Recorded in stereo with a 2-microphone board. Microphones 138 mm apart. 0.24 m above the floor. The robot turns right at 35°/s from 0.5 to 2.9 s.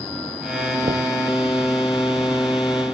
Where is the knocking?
60° right (ahead or behind); by 1.1 s 50° right (ahead or behind).